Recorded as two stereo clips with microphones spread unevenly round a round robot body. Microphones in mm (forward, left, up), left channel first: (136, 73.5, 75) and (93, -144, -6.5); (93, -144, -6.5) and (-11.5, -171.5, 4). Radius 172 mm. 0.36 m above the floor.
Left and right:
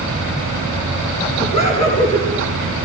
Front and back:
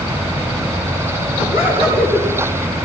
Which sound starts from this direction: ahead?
Laughter, at 1.4 s.